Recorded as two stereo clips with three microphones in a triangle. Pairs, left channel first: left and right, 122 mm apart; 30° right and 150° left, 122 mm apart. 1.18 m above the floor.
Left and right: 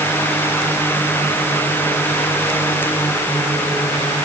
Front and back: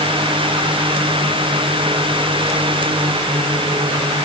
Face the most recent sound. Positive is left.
No sound to turn to.